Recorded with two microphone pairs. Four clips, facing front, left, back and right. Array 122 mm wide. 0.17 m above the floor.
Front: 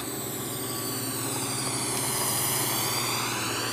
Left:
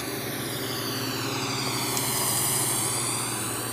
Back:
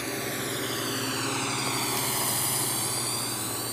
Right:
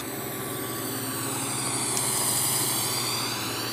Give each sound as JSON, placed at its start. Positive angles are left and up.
{"t": 0.0, "sound": "a drone", "azimuth_deg": 170}